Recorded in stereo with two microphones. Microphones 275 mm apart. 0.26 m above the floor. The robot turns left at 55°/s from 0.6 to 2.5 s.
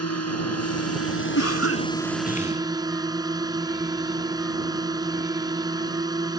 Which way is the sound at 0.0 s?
90° left.